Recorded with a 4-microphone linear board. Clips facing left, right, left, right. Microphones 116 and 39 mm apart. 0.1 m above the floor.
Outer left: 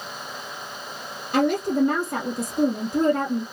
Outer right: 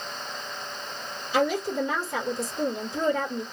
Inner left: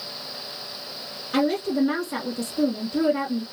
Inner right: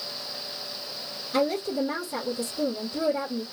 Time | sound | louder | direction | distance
1.3 | a woman speaking | outer left 4 dB, inner left 3 dB | 60° left (ahead or behind) | 3 m